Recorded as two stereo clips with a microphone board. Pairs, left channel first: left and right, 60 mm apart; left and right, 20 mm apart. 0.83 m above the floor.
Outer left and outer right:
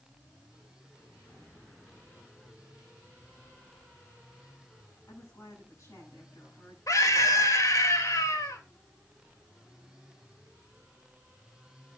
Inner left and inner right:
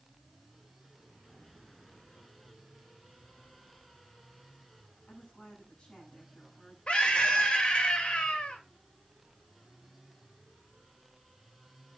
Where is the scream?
65° left (ahead or behind), 3.5 m.